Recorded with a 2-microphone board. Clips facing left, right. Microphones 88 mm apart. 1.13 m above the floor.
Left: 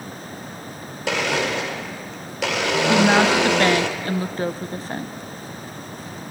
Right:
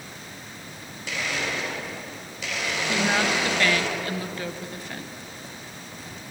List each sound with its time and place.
1.1 s a blender: 75° left (ahead or behind), 1.9 m
2.9 s a woman speaking: 35° left (ahead or behind), 0.6 m